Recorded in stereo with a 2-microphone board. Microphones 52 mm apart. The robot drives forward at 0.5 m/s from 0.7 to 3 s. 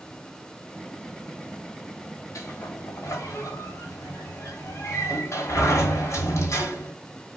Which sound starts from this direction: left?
A sliding door, at 2.4 s.